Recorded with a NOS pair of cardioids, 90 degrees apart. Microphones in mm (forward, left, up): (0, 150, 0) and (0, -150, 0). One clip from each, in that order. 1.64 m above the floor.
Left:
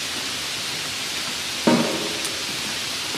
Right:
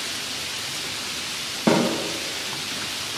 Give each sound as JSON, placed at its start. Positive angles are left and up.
{"t": 1.7, "sound": "a snare drum", "azimuth_deg": 5, "distance_m": 0.5}